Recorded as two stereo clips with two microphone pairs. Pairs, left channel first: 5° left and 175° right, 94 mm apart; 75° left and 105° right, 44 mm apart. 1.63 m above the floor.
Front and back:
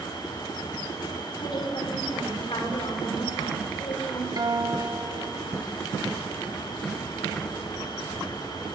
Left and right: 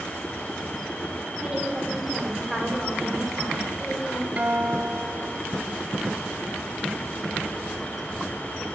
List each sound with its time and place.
1.4 s a woman speaking: 35° right, 6 m; by 4.3 s 15° right, 7 m
4.4 s a guitar: 150° right, 1.7 m